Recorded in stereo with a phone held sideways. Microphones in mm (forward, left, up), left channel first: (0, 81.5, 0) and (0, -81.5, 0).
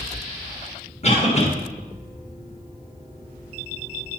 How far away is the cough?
About 1.6 m.